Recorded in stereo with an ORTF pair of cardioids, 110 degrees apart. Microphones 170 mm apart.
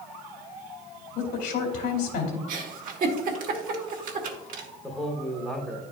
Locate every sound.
1.1 s a woman speaking: 70° left, 2.5 m
2.5 s a giggle: 55° right, 1.4 m
4.8 s a man speaking: straight ahead, 1.1 m